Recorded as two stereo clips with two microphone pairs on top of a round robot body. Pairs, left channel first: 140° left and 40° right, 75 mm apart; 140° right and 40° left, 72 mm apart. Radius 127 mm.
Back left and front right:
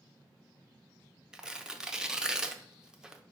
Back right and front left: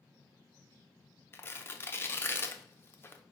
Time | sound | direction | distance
1.3 | tearing paper | 140° right | 0.7 m